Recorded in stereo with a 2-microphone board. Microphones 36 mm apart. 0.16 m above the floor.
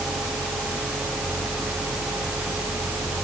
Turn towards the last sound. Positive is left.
No sound to turn to.